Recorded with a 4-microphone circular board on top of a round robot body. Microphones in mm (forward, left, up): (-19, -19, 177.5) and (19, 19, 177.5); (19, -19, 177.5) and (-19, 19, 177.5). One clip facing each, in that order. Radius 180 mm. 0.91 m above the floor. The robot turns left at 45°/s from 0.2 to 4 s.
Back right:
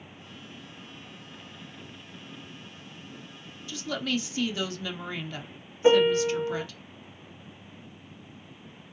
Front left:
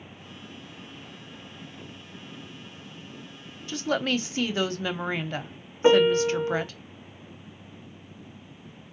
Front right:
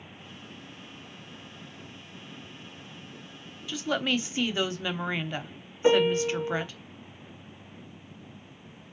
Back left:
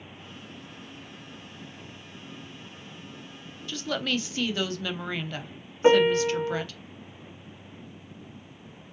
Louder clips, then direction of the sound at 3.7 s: Front left 4 dB, front right 1 dB; 30° left.